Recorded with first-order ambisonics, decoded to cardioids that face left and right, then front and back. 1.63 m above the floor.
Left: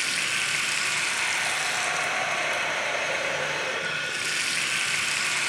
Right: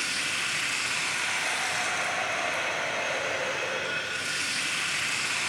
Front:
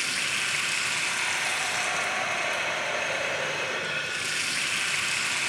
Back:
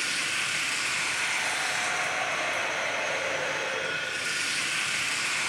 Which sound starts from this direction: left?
Running water, at 0.0 s.